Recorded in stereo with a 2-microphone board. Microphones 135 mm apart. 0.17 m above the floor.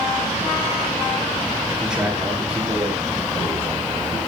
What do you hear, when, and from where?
1.8 s a man speaking: 5° right (ahead or behind), 7 m; by 4.2 s 25° right (ahead or behind), 7.5 m